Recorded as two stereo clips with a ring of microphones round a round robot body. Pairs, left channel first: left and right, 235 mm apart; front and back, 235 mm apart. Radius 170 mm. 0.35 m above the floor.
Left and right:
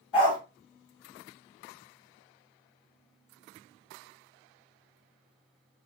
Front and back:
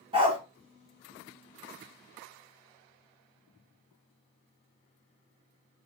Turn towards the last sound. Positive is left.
turn(degrees=110)